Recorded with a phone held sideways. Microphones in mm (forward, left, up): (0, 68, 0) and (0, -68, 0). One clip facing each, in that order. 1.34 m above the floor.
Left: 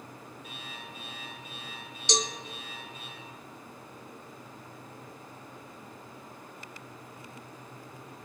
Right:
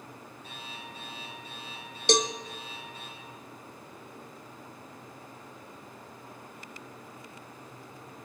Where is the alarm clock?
35° right (ahead or behind), 8 m.